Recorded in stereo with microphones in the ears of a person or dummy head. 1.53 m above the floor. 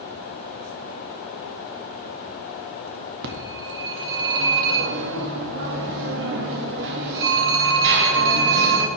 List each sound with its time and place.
3.2 s a phone ringing: 65° right (ahead or behind), 1.9 m